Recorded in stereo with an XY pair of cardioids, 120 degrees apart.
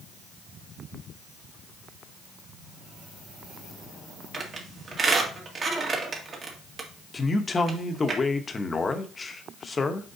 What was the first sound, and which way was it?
A squeak, 40° right.